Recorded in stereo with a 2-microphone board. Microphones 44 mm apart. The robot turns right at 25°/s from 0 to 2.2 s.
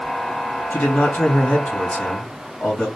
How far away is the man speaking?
About 2.5 m.